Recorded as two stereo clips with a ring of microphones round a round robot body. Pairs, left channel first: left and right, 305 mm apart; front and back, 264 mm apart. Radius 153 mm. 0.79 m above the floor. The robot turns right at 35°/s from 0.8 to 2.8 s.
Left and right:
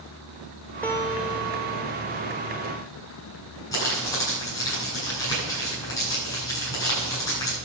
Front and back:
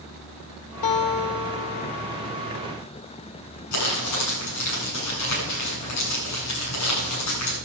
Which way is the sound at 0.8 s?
5° left.